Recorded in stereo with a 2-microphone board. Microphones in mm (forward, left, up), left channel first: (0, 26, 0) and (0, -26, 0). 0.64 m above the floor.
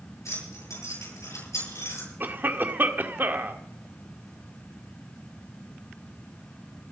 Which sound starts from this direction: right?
A cough, at 2.2 s.